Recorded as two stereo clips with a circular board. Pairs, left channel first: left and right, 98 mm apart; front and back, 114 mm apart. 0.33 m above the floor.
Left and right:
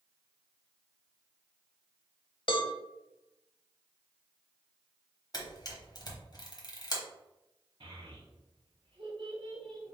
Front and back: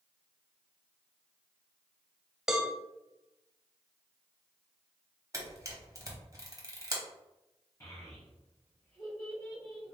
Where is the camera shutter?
125° left, 1.1 m.